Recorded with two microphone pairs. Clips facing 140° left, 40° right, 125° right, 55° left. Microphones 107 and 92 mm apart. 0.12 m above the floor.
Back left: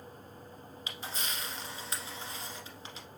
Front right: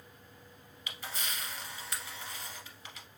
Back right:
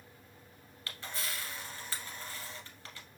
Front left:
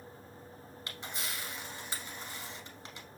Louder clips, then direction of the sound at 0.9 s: Back left 1 dB, back right 1 dB; 110° left.